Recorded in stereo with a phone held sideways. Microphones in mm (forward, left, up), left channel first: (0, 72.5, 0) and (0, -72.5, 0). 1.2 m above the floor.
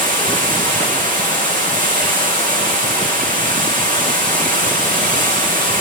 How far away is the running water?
About 8.5 m.